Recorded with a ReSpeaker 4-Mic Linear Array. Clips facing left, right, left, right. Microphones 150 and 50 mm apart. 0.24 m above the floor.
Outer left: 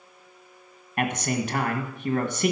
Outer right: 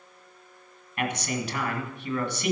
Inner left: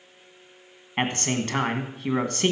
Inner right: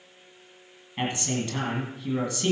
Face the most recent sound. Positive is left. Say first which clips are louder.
# outer left 3 dB, inner left 3 dB
turn(degrees=55)  # may be behind; listen again after turning